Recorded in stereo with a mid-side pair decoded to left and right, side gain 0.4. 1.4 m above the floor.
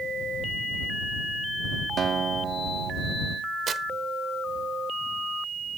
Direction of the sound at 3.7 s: 55° right.